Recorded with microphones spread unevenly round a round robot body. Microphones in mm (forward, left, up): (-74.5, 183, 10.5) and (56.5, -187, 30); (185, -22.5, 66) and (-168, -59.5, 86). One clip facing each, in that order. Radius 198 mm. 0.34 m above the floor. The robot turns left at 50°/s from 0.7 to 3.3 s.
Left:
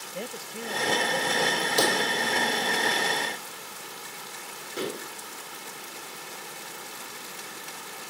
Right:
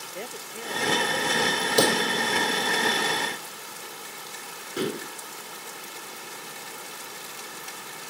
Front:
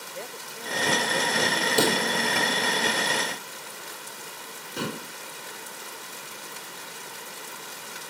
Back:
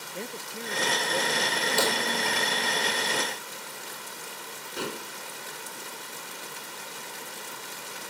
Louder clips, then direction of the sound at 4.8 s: Right 4 dB, front 2 dB; 5° right.